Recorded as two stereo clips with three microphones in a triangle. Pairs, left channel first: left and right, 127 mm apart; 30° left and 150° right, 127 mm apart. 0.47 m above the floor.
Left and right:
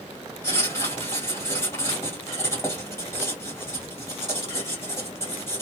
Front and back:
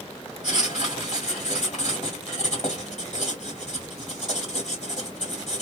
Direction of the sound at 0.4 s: 25° left.